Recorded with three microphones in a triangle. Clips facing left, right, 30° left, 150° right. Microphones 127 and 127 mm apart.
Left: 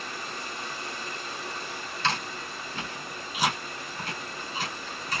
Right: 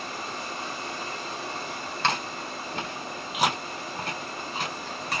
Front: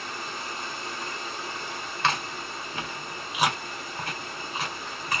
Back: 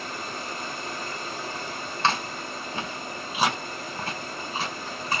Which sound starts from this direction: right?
Chewing, at 2.0 s.